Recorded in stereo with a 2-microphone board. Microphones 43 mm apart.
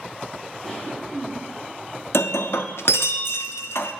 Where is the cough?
20° left (ahead or behind), 1.6 m.